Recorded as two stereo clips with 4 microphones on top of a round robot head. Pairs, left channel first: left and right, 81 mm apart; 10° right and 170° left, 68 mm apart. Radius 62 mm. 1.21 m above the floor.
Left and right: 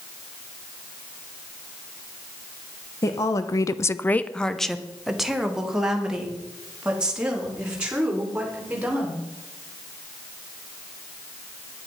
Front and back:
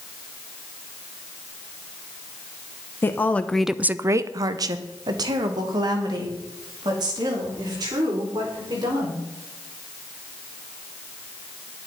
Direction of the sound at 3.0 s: 40° left.